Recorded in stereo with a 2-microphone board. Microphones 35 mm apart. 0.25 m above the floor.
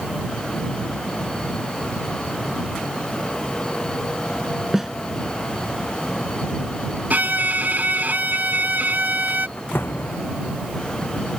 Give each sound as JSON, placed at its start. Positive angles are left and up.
{"t": 4.7, "sound": "a snare drum", "side_deg": -10}
{"t": 7.1, "sound": "a violin", "side_deg": -55}
{"t": 9.6, "sound": "a door slam", "side_deg": 85}